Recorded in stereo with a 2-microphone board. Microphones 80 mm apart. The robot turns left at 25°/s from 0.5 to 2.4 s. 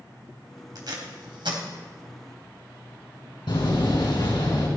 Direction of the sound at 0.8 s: 55° right (ahead or behind).